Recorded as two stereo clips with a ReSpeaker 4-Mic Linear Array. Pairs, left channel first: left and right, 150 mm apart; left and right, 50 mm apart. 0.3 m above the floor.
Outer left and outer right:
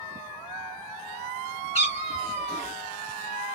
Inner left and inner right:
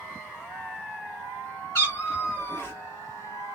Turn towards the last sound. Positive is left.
turn(degrees=45)  # may be behind; listen again after turning